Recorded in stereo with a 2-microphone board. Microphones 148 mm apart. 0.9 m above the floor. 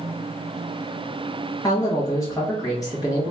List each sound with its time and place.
1.6 s a man speaking: 25° left (ahead or behind), 1.0 m